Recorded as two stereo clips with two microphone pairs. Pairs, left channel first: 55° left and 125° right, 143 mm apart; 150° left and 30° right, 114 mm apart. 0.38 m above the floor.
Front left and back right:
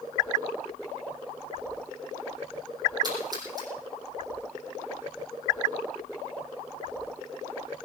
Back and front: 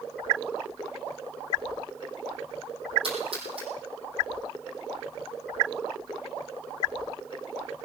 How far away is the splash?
About 5.5 m.